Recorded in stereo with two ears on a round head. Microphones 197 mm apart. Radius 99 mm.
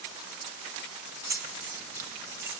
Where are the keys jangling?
10° right (ahead or behind), 1.4 m.